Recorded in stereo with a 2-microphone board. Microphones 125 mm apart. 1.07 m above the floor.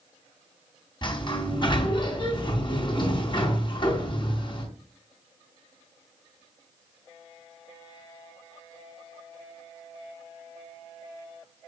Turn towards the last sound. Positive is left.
turn(degrees=40)  # may be behind; listen again after turning